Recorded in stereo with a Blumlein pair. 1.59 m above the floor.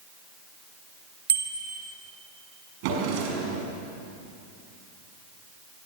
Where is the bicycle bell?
65° right, 3.5 m.